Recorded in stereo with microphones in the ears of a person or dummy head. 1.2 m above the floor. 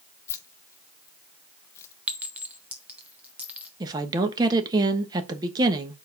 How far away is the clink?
About 0.7 m.